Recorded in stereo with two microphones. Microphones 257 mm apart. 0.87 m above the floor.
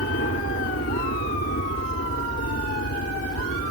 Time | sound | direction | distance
0.0 | a helicopter | 55° left (ahead or behind) | ?